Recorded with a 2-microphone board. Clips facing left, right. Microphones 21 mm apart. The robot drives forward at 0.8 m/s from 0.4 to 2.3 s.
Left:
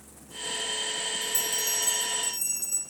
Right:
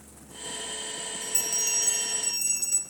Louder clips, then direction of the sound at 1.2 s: Even; 35° right (ahead or behind).